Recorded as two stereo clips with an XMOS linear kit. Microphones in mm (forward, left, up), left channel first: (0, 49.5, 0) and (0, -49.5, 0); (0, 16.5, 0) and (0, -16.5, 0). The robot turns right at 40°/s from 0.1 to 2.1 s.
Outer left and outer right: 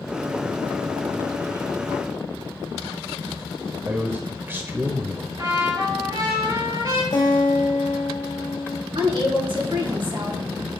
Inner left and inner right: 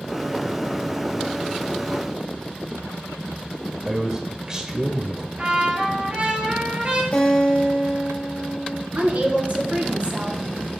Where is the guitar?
45° left (ahead or behind), 3 m.